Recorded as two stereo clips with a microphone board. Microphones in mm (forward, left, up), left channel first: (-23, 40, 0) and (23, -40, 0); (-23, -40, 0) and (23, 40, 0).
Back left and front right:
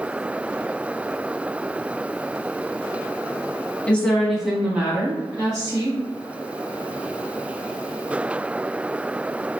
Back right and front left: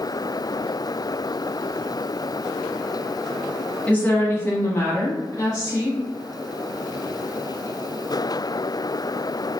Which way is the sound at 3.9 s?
175° right.